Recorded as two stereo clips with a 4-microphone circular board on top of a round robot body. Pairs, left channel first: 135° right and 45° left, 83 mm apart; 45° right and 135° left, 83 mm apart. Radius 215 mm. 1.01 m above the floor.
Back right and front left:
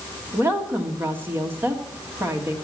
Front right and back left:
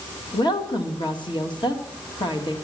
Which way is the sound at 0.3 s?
20° right.